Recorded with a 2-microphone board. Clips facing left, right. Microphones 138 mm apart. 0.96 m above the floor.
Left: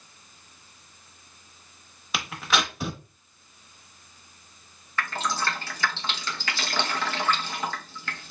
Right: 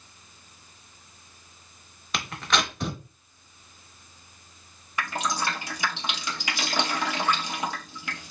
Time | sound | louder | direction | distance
2.1 | tearing paper | even | 5° left (ahead or behind) | 0.8 m
5.0 | dripping | even | 15° right (ahead or behind) | 0.9 m